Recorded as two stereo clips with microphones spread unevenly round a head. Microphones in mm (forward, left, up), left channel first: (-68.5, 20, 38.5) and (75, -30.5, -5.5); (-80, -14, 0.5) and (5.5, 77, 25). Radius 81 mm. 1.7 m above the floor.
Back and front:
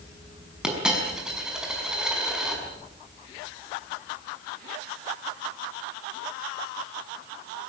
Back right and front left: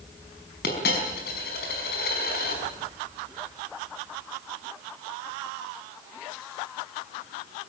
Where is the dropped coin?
110° right, 5 m.